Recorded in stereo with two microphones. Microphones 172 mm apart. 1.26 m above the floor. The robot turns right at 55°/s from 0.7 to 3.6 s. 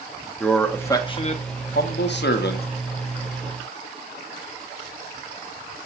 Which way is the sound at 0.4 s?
10° left.